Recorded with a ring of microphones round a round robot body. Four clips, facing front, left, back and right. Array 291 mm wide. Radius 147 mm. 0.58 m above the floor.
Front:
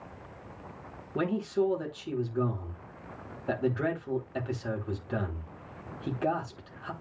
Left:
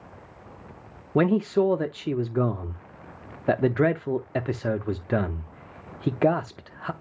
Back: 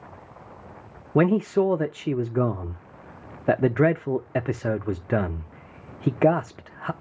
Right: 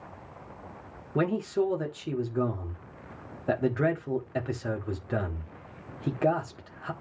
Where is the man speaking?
150° left, 1.1 m.